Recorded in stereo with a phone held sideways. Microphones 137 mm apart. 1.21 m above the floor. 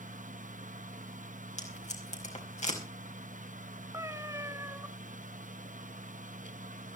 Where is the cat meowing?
20° right (ahead or behind), 1.0 m.